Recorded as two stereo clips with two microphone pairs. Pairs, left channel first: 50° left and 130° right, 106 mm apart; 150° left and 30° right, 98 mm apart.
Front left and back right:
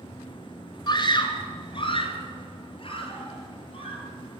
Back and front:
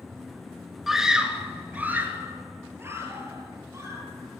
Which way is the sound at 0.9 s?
55° left.